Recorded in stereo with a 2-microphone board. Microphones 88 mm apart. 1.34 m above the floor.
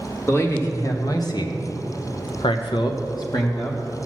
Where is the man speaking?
35° left (ahead or behind), 1.9 m.